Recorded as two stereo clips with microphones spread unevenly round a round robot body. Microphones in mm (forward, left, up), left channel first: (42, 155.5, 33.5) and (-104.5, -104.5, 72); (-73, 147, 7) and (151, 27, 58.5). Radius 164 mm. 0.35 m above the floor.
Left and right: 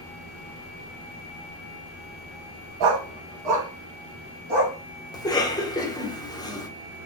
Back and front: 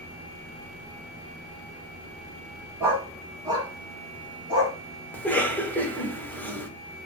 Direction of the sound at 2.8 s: 115° right.